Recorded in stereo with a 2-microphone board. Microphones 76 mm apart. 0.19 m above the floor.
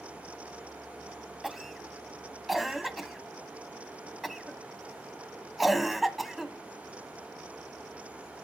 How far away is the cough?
About 1.1 m.